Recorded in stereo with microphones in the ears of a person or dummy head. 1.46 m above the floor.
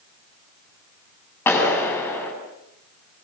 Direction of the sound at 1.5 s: 10° left (ahead or behind).